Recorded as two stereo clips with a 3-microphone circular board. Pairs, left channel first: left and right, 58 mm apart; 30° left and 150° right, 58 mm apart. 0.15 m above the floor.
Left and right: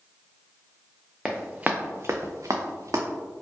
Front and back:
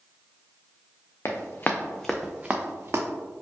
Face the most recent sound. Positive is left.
turn(degrees=-110)